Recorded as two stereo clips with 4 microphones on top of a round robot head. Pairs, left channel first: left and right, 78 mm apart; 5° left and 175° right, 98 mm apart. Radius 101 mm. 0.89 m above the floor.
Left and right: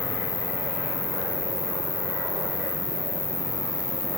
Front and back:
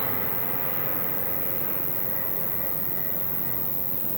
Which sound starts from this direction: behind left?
An insect, at 0.0 s.